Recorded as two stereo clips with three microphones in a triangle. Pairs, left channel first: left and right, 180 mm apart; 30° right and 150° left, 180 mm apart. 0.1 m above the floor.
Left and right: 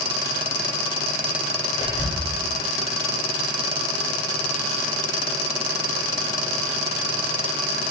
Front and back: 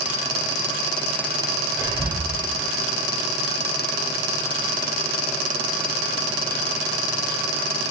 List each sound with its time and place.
1.8 s whispering: 145° right, 1.8 m